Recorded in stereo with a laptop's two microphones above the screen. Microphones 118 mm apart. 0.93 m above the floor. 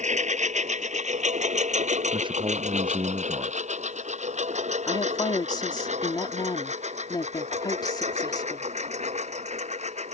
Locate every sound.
0.0 s a lawn mower: 85° right; by 10.2 s 70° right (ahead or behind)
2.1 s a man speaking: 45° right (ahead or behind)
4.9 s a woman speaking: 35° left (ahead or behind)